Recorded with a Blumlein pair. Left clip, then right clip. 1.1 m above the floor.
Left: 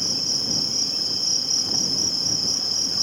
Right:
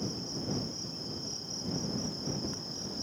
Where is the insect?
35° left.